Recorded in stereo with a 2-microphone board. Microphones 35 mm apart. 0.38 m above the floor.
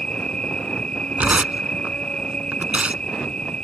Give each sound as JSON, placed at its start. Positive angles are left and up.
{"t": 0.0, "sound": "an insect", "side_deg": 30}
{"t": 1.2, "sound": "tearing paper", "side_deg": -40}